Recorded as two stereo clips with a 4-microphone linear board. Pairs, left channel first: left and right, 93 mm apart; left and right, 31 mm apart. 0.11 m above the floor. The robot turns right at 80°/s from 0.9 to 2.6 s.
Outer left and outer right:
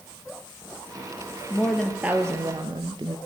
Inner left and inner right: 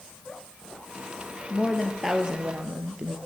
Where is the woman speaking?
150° left, 2.5 m; by 3.2 s 120° right, 2.5 m.